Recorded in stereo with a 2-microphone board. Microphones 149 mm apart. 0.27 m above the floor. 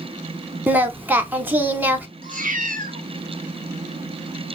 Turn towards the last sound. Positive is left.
turn(degrees=-70)  # may be behind; listen again after turning